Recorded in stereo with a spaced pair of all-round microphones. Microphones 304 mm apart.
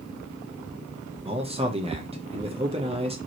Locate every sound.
1.2 s a man speaking: 20° right (ahead or behind), 0.8 m